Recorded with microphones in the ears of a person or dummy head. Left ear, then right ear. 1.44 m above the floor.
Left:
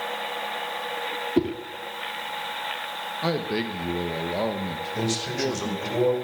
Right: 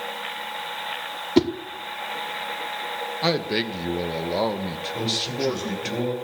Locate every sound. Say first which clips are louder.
1.4 s a whoosh: right 5 dB; 60° right (ahead or behind), 0.9 m
3.2 s a man speaking: right 3 dB; 25° right (ahead or behind), 1.2 m
5.0 s a man speaking: right 2 dB; 60° left (ahead or behind), 5 m